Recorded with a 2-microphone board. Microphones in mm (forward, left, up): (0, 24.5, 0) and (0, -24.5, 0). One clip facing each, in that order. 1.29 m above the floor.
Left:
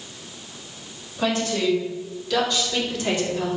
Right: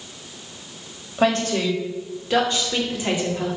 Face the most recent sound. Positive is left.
turn(degrees=-10)  # may be behind; listen again after turning